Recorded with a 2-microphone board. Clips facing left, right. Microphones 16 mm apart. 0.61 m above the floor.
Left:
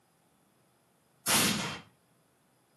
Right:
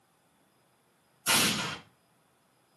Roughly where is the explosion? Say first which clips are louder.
Right 2 dB; right.